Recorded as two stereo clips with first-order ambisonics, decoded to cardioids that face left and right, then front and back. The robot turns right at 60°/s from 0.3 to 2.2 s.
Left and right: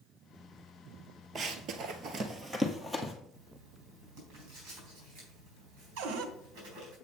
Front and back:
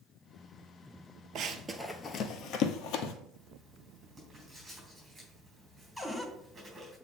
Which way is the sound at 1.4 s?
145° right.